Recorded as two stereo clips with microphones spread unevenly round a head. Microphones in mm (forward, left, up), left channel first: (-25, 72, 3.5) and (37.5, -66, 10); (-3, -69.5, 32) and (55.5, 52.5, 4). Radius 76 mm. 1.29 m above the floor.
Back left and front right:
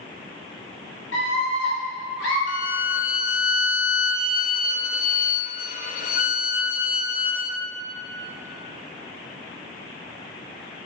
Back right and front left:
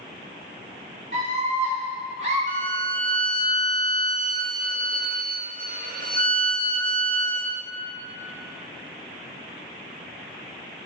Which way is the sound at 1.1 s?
110° left.